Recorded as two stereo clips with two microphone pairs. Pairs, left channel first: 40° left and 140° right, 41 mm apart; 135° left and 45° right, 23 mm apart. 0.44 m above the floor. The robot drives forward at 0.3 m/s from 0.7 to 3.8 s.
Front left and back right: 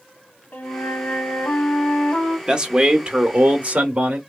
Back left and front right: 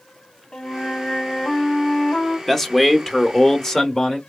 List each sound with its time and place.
0.5 s a flute: 70° left, 1.5 m; by 2.4 s 90° left, 1.5 m
2.5 s a man speaking: 165° right, 0.7 m; by 4.2 s 175° right, 0.9 m